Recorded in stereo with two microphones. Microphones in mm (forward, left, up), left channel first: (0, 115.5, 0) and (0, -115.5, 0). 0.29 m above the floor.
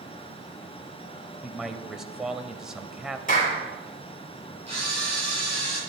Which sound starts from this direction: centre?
A man speaking, at 1.4 s.